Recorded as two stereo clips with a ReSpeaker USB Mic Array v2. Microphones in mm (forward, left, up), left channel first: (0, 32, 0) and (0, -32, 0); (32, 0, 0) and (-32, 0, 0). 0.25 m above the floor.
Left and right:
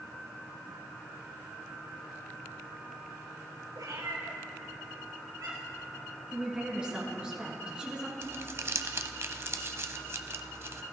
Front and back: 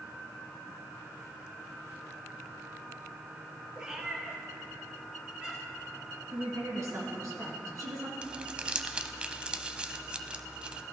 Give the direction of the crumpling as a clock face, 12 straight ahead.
4 o'clock.